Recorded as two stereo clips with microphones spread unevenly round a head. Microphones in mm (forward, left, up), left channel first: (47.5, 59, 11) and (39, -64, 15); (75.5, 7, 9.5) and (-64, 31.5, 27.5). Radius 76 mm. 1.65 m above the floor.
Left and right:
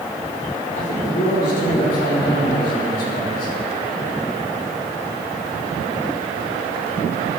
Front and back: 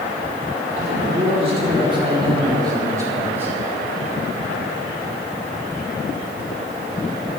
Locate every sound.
0.8 s a man speaking: 130° left, 4.5 m; by 3.5 s 95° left, 3.5 m